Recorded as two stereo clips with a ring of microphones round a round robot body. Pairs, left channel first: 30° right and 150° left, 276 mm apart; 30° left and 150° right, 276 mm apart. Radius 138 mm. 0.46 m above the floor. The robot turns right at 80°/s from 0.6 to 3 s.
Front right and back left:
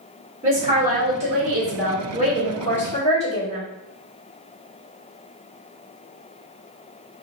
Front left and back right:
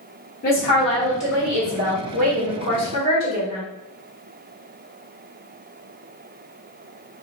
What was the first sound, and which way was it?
A woman speaking, 75° left.